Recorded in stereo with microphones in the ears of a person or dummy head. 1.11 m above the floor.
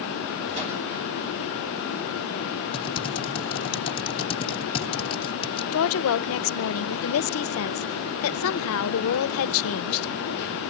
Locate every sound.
0.5 s a whoosh: 35° right (ahead or behind), 6.5 m
2.7 s typing on a keyboard: 25° left (ahead or behind), 0.8 m
5.7 s a woman speaking: 65° left (ahead or behind), 0.5 m